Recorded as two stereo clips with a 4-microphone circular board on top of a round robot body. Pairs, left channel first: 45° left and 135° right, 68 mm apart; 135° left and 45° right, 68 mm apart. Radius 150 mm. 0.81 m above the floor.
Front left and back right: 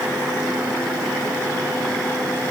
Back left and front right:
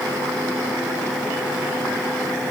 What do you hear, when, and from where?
Only background noise.